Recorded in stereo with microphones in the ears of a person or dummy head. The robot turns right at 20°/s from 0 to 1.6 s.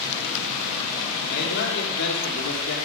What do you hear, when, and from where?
1.3 s a man speaking: 50° left (ahead or behind), 2.5 m; by 2.8 s 60° left (ahead or behind), 2.5 m